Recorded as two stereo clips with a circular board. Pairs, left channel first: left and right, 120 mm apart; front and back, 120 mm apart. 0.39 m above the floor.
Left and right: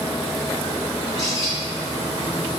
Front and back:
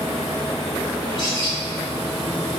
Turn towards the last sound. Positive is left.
turn(degrees=40)